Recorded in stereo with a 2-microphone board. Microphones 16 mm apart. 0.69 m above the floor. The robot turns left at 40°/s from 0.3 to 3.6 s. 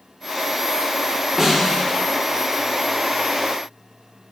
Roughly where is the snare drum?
Centre.